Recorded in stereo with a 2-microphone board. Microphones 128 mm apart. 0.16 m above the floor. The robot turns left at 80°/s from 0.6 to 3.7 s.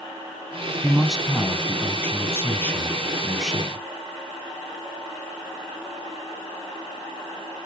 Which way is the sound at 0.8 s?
10° right (ahead or behind).